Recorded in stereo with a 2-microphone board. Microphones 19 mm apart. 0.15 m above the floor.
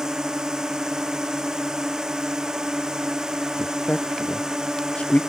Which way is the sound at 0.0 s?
30° right (ahead or behind).